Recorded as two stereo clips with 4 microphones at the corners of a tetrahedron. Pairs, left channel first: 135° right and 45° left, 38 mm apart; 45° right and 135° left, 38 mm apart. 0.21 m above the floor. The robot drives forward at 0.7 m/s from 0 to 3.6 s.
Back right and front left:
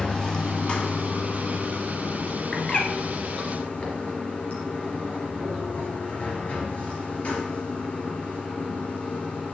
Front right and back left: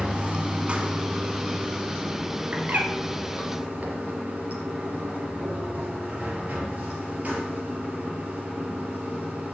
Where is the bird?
160° left, 2.0 m; by 2.9 s 165° left, 2 m.